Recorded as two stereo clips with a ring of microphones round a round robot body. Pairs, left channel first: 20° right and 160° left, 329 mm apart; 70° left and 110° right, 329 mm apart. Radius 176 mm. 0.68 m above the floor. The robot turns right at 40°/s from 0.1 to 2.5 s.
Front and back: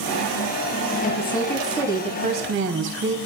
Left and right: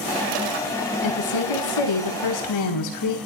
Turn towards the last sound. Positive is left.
turn(degrees=100)